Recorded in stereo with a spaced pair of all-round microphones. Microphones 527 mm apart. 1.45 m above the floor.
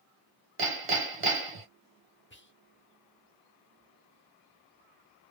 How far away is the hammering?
About 1.0 m.